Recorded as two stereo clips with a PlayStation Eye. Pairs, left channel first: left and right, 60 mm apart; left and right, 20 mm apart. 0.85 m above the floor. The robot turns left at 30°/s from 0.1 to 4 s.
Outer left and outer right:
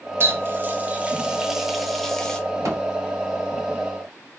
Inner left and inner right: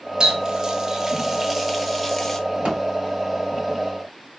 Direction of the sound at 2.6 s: 60° right (ahead or behind).